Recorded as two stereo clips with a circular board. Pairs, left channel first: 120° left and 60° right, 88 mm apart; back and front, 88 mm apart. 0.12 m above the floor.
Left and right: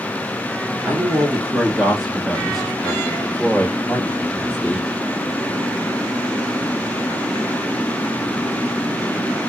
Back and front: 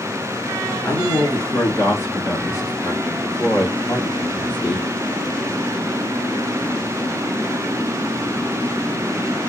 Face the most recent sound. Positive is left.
turn(degrees=-155)